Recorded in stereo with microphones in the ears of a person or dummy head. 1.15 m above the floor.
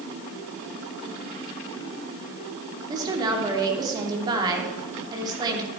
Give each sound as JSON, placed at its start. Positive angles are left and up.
{"t": 2.9, "sound": "a woman speaking", "side_deg": -25, "distance_m": 3.0}